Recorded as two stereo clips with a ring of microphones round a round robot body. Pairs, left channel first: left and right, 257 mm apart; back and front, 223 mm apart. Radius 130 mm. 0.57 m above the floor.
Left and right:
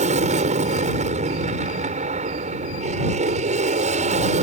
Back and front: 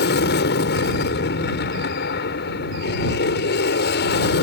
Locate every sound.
0.0 s an aircraft: 150° right